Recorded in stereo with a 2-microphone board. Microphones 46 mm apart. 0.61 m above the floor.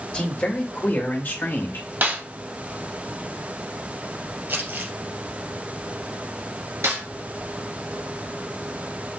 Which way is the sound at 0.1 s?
20° left (ahead or behind).